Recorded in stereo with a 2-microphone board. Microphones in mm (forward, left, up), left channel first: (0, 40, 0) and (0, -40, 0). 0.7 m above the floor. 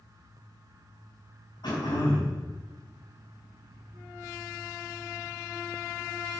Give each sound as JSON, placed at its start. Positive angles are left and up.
{"t": 1.6, "sound": "throat clearing", "side_deg": 65, "distance_m": 4.5}